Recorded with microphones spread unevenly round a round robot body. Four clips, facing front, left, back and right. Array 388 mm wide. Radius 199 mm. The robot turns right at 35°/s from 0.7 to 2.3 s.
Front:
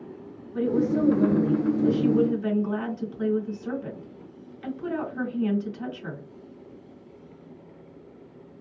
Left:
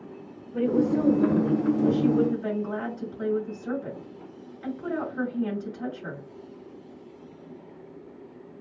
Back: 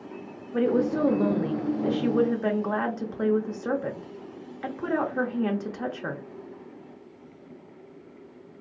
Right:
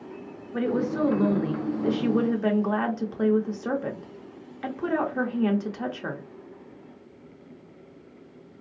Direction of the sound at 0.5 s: 170° right.